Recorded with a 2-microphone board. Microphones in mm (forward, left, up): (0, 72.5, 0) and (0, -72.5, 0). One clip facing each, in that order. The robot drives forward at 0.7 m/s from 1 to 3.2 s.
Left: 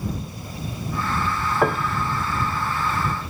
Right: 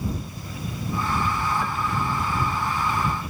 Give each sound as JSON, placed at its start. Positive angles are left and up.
{"t": 1.6, "sound": "a piano", "side_deg": 70}